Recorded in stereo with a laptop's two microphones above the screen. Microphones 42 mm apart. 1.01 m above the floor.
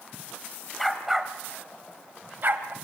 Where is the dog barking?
Centre (ahead or behind), 1.4 m; by 2.7 s 60° right (ahead or behind), 1.6 m.